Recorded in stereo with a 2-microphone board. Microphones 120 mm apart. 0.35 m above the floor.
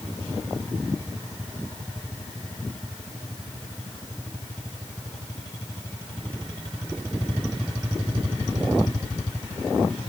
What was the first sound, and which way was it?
Only background noise.